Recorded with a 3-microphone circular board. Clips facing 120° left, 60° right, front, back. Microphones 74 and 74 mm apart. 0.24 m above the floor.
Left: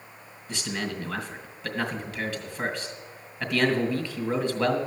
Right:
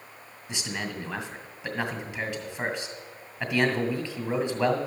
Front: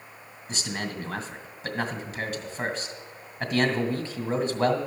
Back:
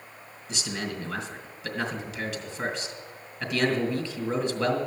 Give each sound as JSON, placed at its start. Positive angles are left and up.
{"t": 0.5, "sound": "a man speaking", "azimuth_deg": 0, "distance_m": 2.0}